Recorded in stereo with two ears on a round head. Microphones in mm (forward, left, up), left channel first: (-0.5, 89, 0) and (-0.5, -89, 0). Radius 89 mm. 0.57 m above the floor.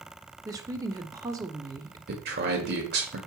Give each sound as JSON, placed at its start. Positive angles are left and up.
{"t": 0.5, "sound": "a woman speaking", "side_deg": -20, "distance_m": 1.0}
{"t": 2.1, "sound": "a man speaking", "side_deg": -55, "distance_m": 1.7}